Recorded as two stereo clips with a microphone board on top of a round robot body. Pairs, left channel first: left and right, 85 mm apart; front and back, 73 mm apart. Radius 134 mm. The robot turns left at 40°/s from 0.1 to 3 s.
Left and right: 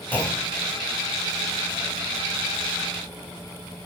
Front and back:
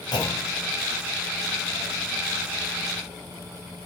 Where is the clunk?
20° left, 3.5 m; by 0.7 s straight ahead, 3.5 m.